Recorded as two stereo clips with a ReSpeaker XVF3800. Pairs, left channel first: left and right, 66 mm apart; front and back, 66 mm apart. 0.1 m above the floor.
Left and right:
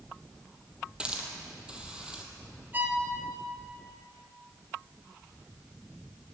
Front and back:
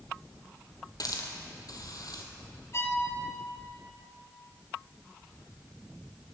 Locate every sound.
1.0 s a hiss: 15° right, 1.4 m
2.7 s a violin: 35° right, 1.2 m